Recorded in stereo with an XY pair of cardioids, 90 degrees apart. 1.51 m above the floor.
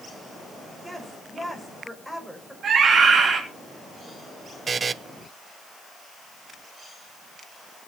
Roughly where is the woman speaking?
Ahead.